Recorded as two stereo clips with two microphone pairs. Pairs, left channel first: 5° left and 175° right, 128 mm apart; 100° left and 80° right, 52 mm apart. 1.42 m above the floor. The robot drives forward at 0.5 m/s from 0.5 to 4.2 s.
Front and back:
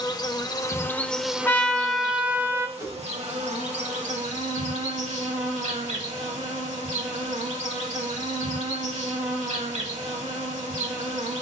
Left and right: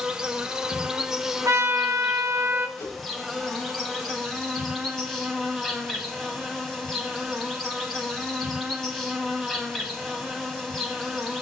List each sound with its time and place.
0.0 s an insect: 10° right, 0.7 m; by 11.4 s 175° right, 1.6 m
1.4 s a trumpet: 70° right, 0.9 m; by 2.7 s 110° right, 0.8 m
2.8 s a whoosh: 120° left, 4.5 m